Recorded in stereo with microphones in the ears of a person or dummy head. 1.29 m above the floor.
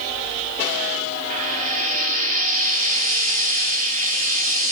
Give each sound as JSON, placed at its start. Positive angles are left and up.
{"t": 1.3, "sound": "frying", "side_deg": -45, "distance_m": 2.5}